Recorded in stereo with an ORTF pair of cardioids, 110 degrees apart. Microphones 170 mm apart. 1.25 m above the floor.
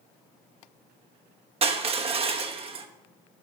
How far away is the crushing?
About 1.0 m.